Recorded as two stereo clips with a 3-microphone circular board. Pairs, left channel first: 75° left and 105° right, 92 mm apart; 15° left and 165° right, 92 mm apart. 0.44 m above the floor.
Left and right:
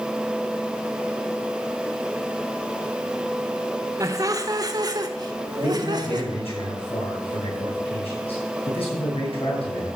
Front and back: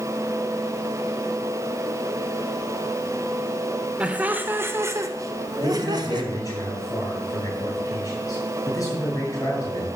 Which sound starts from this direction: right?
Laughter, at 4.0 s.